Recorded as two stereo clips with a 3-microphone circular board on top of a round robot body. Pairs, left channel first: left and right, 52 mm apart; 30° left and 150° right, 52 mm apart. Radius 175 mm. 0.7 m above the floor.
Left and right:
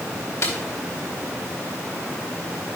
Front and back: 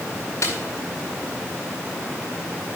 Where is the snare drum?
60° left, 3 m.